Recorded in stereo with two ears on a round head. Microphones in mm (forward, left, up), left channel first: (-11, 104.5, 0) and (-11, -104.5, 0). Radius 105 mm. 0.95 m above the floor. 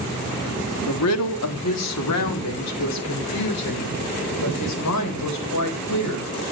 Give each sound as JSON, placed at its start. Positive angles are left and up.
{"t": 0.9, "sound": "a woman speaking", "side_deg": 75, "distance_m": 1.6}